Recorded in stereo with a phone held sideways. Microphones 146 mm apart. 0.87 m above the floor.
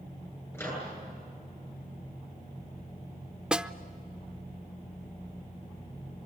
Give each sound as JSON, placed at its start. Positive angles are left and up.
{"t": 0.5, "sound": "a microwave", "side_deg": 15, "distance_m": 10.0}
{"t": 3.5, "sound": "a snare drum", "side_deg": -5, "distance_m": 0.6}